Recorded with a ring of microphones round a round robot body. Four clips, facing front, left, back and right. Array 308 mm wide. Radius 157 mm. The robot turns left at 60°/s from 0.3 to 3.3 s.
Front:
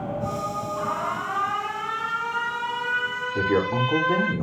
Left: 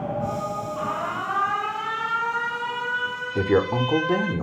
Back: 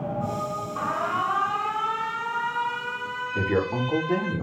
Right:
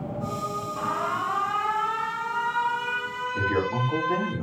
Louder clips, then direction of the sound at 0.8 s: Right 3 dB, back 3 dB; 160° left.